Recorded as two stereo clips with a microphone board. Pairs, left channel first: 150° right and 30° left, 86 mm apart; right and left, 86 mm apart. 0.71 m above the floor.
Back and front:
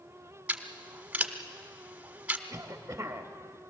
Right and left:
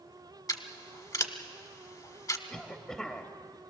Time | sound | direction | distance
0.5 | scissors | 45° right | 1.2 m
2.5 | a cough | 20° right | 1.0 m